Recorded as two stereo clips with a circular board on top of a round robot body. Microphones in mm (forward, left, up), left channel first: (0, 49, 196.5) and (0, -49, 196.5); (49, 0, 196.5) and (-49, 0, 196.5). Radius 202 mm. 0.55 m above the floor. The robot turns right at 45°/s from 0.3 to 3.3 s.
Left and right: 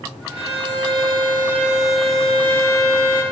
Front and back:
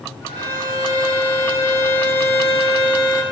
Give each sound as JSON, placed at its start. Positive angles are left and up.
{"t": 0.4, "sound": "a violin", "azimuth_deg": -75, "distance_m": 8.5}